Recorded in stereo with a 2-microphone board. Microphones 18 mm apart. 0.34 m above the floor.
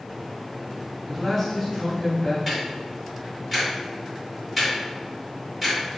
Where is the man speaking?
15° right (ahead or behind), 1.2 m; by 2.4 s 15° left (ahead or behind), 1.2 m.